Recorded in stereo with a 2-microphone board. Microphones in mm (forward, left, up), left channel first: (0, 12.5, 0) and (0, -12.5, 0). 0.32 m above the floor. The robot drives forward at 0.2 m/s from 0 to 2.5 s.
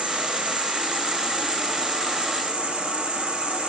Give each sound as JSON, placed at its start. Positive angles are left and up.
{"t": 0.0, "sound": "an insect", "side_deg": -45, "distance_m": 1.9}